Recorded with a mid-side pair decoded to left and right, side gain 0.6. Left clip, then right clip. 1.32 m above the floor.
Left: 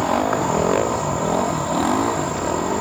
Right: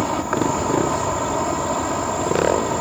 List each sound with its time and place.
0.0 s an insect: 10° right